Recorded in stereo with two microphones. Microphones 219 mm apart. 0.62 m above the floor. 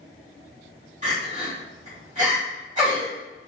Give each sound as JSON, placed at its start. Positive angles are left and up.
{"t": 1.0, "sound": "crying", "side_deg": -35, "distance_m": 1.6}